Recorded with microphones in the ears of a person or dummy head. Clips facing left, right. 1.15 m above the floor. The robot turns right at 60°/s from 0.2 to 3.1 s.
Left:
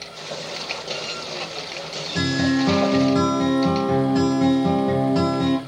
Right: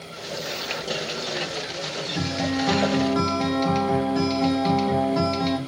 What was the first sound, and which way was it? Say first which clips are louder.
A guitar: left 6 dB; 80° left.